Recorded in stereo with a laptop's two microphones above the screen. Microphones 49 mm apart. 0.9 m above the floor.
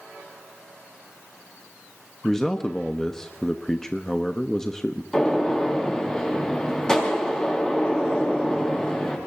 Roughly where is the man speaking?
Centre.